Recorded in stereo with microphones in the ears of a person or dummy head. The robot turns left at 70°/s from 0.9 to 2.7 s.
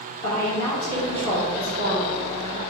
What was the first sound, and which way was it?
A woman speaking, 20° left.